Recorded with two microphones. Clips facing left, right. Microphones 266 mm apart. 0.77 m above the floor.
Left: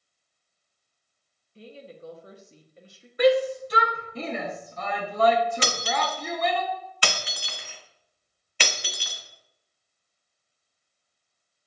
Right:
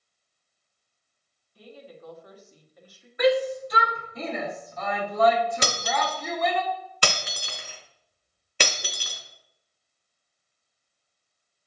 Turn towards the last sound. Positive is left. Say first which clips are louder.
# even
turn(degrees=-50)  # may be behind; listen again after turning